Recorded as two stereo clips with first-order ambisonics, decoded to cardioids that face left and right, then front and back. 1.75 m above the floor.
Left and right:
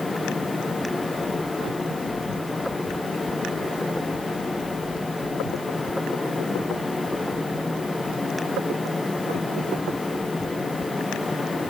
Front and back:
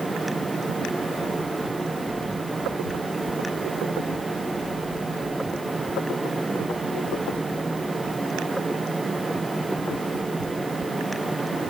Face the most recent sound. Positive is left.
No sound to turn to.